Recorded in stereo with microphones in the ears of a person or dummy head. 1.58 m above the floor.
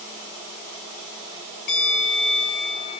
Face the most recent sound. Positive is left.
turn(degrees=50)  # may be behind; listen again after turning